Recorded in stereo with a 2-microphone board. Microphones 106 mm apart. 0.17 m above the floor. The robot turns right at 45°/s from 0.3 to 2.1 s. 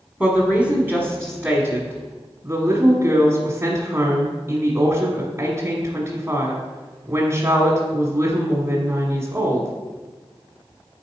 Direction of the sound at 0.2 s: 10° right (ahead or behind).